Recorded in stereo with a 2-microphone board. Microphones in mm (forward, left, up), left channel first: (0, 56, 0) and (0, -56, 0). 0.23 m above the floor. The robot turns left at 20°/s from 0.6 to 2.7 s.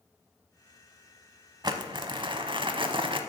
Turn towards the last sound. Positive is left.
turn(degrees=-50)  # may be behind; listen again after turning